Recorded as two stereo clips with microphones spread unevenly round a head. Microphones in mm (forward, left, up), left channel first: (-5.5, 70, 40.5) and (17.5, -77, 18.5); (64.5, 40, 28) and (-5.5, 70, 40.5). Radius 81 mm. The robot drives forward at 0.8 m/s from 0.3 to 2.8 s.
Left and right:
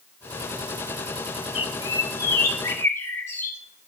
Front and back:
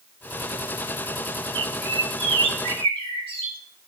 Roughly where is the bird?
Behind left.